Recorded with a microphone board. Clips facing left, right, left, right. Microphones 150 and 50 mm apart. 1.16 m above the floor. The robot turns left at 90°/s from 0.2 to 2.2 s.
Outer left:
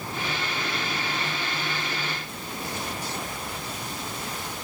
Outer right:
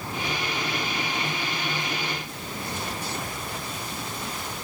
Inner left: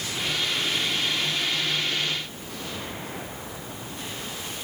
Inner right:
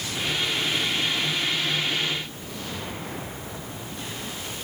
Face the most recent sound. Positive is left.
No sound to turn to.